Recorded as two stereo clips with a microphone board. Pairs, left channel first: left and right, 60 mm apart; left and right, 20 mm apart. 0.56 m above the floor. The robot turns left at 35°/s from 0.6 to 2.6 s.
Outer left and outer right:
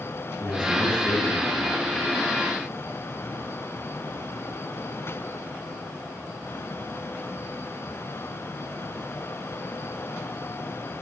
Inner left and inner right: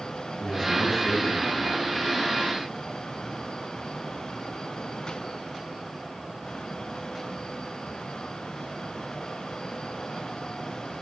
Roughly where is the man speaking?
Ahead right.